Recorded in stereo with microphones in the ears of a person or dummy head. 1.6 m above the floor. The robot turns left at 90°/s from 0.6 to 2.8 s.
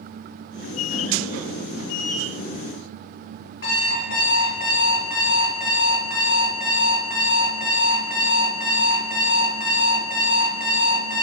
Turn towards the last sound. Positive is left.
turn(degrees=55)  # may be behind; listen again after turning